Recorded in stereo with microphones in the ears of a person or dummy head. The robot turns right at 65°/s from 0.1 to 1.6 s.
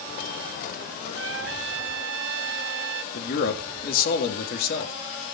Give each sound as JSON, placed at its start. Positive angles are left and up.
{"t": 1.1, "sound": "a trumpet", "side_deg": -65, "distance_m": 0.9}
{"t": 3.1, "sound": "a man speaking", "side_deg": 55, "distance_m": 3.0}